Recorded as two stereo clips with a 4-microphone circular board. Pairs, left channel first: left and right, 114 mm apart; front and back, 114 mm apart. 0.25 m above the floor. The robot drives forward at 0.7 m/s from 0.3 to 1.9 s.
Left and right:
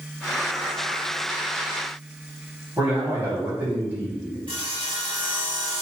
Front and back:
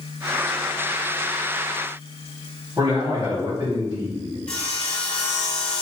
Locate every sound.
2.8 s a man speaking: 135° right, 1.7 m
4.5 s sawing: 80° right, 0.7 m